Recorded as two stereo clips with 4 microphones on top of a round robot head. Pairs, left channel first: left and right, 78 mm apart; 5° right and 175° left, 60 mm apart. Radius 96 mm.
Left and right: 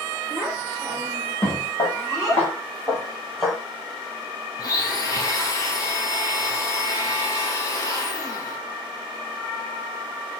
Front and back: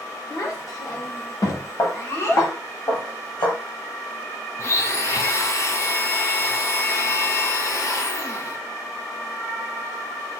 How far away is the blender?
About 0.7 m.